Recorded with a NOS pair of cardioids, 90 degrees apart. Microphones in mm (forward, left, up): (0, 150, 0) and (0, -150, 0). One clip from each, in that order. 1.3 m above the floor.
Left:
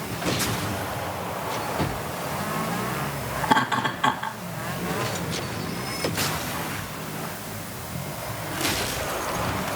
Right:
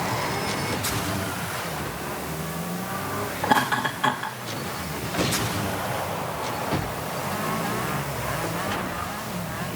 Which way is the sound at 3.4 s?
Straight ahead.